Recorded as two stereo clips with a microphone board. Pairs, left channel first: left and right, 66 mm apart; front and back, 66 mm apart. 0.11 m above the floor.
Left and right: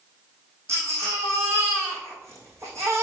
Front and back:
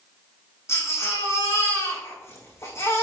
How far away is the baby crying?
About 5.5 m.